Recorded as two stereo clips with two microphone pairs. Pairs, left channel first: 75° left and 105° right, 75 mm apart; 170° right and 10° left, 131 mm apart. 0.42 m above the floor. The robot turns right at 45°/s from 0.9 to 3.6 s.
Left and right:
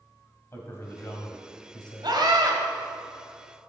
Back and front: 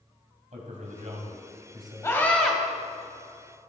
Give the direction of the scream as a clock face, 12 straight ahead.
4 o'clock.